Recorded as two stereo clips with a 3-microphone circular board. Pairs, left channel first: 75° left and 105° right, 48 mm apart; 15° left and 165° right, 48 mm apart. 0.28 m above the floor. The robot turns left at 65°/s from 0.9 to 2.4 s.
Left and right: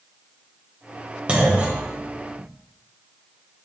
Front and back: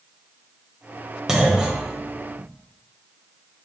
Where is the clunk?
95° right, 0.7 m; by 2.5 s 170° right, 0.7 m.